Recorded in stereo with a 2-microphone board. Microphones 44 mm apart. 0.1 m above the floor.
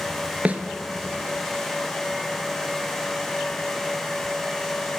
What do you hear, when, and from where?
0.5 s a snare drum: 35° right (ahead or behind), 0.6 m